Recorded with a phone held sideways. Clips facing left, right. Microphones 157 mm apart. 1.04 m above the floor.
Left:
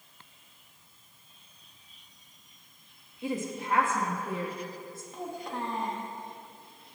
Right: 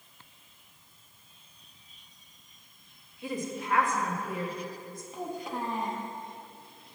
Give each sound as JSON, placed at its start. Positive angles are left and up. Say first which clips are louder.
{"t": 3.2, "sound": "a woman speaking", "louder": "left 1 dB", "side_deg": 25, "distance_m": 1.2}
{"t": 5.1, "sound": "a child speaking", "louder": "right 1 dB", "side_deg": -5, "distance_m": 1.2}